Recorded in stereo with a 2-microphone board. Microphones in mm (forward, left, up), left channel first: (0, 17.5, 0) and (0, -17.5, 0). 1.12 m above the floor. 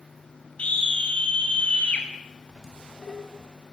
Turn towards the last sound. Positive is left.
turn(degrees=-5)  # may be behind; listen again after turning